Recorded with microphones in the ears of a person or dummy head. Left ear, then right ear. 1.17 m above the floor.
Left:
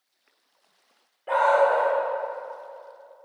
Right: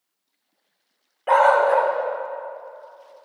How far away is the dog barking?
About 1.2 m.